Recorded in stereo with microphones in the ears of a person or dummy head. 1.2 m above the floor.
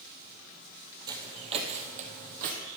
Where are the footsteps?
20° right (ahead or behind), 1.8 m; by 2.6 s 50° right (ahead or behind), 2.5 m.